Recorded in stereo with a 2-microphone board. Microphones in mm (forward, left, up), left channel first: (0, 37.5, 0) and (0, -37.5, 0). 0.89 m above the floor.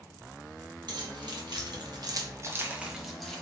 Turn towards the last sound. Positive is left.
turn(degrees=5)  # may be behind; listen again after turning